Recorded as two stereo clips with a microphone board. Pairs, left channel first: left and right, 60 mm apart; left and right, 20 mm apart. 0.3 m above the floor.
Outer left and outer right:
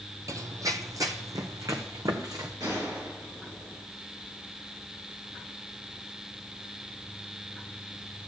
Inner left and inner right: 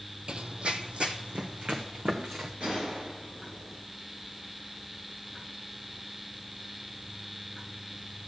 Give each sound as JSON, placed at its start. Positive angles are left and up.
{"t": 0.3, "sound": "running footsteps", "side_deg": -65, "distance_m": 0.5}
{"t": 2.6, "sound": "a gunshot", "side_deg": -75, "distance_m": 4.5}